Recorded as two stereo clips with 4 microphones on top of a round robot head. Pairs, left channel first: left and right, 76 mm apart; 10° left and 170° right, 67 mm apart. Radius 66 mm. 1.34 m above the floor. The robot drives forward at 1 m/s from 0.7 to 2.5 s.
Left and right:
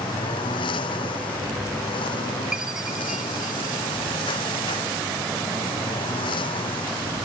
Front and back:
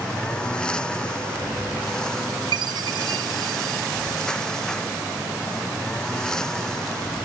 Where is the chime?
175° right.